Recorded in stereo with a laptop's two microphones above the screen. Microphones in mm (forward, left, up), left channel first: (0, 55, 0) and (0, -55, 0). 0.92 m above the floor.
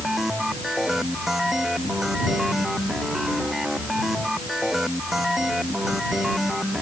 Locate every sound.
0.0 s a machine running: 5° right (ahead or behind)